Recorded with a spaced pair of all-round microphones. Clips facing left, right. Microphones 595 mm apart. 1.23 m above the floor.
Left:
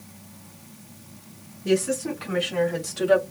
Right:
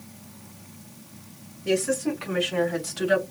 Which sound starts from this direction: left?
A woman speaking, at 1.6 s.